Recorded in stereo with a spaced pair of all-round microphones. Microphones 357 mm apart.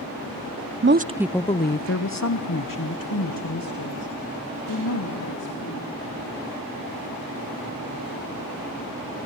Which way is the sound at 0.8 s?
35° right (ahead or behind).